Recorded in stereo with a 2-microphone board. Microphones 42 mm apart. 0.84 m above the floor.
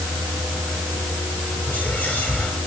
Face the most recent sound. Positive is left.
turn(degrees=55)  # may be behind; listen again after turning